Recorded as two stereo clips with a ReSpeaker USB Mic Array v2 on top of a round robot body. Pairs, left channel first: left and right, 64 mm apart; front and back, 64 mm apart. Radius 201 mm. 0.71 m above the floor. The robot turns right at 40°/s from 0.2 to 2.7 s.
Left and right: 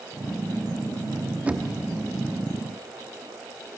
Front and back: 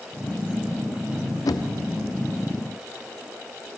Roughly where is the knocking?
Ahead.